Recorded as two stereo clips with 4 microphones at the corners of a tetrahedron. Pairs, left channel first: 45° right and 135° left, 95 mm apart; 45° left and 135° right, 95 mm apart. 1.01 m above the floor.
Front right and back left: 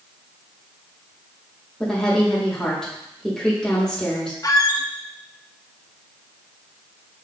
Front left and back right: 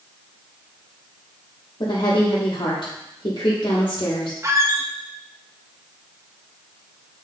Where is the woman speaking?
35° left, 1.2 m.